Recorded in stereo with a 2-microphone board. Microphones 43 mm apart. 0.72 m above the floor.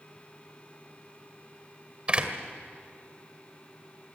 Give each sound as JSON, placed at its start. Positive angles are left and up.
{"t": 2.1, "sound": "a door slam", "side_deg": -25, "distance_m": 1.8}